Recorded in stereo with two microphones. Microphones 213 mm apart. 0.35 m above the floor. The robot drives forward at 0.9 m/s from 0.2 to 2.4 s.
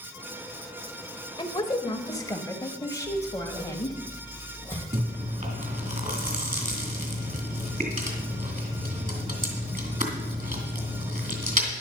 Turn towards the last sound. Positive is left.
turn(degrees=-35)  # may be behind; listen again after turning